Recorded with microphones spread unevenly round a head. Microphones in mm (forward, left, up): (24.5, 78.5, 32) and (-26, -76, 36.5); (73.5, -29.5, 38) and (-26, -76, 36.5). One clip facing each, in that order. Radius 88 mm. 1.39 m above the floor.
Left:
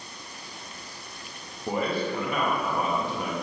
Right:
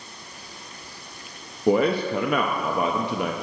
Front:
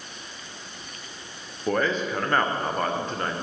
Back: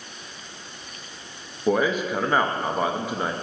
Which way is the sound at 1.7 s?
75° right.